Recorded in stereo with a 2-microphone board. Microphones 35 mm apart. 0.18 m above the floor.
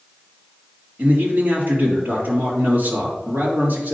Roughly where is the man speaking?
Right.